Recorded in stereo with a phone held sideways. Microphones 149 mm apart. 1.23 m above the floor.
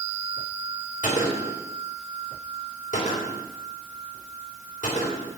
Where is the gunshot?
60° left (ahead or behind), 4.5 m.